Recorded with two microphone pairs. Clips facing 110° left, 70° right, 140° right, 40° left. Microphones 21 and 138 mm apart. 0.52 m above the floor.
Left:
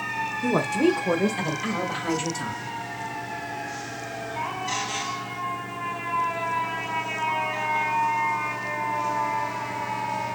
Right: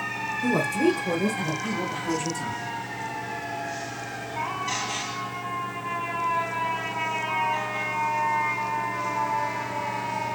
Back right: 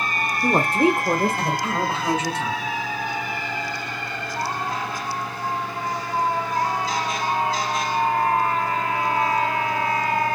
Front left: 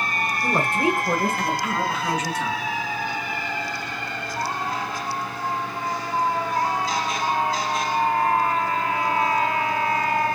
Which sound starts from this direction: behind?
A woman speaking, at 0.4 s.